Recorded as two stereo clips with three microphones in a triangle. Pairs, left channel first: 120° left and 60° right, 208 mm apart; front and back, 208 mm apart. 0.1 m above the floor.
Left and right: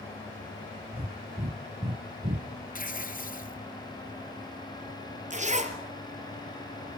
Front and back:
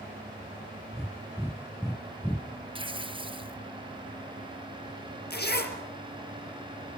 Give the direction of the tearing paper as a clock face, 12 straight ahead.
8 o'clock.